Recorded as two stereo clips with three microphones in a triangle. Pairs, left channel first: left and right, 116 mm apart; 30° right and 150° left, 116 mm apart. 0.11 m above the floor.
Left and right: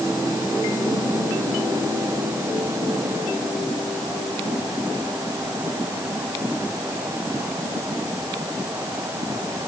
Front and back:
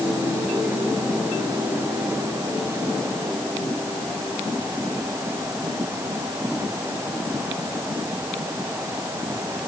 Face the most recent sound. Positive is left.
No sound to turn to.